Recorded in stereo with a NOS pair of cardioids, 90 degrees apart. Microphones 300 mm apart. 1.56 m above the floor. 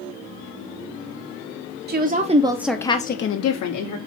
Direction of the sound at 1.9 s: 35° right.